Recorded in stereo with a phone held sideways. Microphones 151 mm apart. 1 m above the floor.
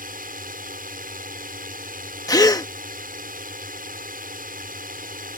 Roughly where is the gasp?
Left.